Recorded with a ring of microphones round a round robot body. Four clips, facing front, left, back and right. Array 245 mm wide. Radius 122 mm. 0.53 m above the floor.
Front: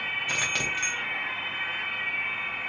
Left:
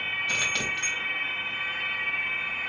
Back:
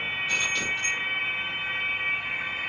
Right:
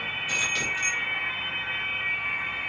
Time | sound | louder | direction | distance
0.3 | keys jangling | right 1 dB, even | 25° left | 1.9 m